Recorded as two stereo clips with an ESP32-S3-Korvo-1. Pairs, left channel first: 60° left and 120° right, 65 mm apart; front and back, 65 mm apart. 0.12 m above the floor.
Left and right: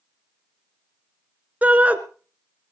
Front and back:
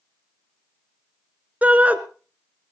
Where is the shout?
150° right, 1.1 m.